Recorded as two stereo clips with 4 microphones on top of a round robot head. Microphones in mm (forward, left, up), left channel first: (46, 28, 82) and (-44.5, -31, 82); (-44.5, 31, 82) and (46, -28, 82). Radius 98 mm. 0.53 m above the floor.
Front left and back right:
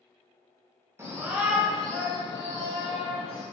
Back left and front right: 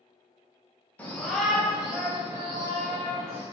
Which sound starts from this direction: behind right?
A shout, at 1.0 s.